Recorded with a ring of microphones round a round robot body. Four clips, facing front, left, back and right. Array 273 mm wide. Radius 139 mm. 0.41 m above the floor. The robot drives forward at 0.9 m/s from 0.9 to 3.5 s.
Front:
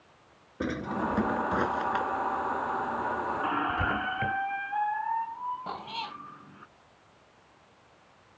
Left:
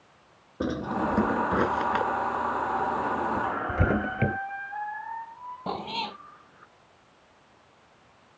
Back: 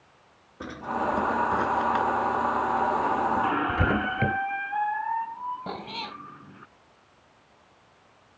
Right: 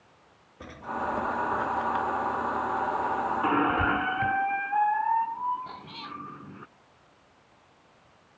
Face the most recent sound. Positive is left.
turn(degrees=120)